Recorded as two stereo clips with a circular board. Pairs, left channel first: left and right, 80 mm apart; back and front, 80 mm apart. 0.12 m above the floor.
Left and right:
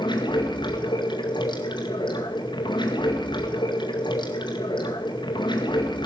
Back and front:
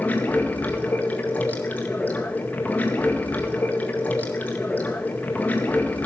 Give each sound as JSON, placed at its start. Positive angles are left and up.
{"t": 0.0, "sound": "running water", "azimuth_deg": 110, "distance_m": 1.9}